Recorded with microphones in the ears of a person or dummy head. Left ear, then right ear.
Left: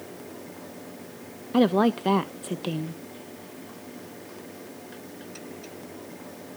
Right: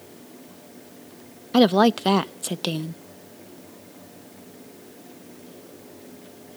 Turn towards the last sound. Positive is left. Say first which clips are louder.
# right 4 dB
turn(degrees=-25)  # may be behind; listen again after turning